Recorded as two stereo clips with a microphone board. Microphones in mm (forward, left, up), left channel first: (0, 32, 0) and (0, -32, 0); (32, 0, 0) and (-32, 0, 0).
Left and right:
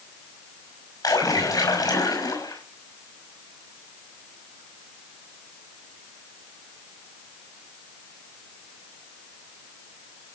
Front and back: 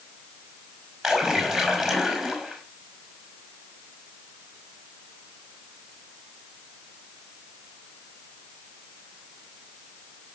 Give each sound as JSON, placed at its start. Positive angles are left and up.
{"t": 1.0, "sound": "a splash", "azimuth_deg": 90, "distance_m": 5.5}